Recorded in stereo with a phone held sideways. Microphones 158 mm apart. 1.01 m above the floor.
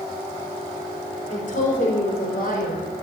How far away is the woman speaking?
About 4 m.